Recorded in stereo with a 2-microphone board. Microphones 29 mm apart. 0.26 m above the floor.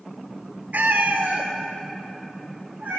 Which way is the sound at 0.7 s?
80° right.